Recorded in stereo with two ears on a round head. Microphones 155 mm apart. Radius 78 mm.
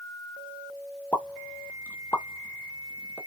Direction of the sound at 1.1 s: 10° left (ahead or behind).